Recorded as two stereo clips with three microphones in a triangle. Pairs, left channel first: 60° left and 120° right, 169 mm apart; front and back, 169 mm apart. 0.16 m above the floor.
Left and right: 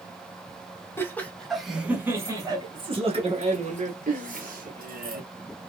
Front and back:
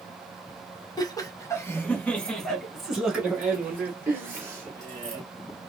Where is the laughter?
10° left, 1.2 m; by 5.2 s 110° right, 2 m.